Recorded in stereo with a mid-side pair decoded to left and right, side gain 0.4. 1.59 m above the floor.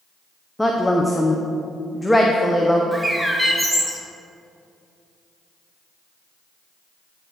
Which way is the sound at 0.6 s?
10° left.